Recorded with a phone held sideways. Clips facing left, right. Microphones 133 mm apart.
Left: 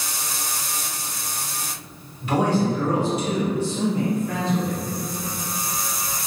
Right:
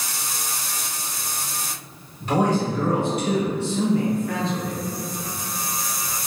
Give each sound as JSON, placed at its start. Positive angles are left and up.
{"t": 2.2, "sound": "a man speaking", "side_deg": -35, "distance_m": 1.1}